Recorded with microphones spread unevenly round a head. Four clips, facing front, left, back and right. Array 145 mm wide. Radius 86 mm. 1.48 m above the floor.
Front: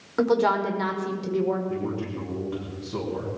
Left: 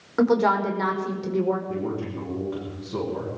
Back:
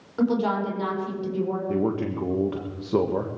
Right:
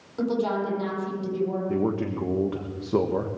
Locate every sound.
0.2 s a woman speaking: 50° left, 4.5 m
1.7 s a man speaking: 140° right, 1.5 m